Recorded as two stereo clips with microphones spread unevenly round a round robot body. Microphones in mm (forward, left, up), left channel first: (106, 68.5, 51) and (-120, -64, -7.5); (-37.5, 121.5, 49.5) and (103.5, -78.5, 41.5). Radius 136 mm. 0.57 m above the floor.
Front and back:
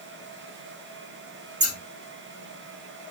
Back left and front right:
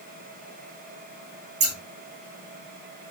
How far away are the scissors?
About 5 m.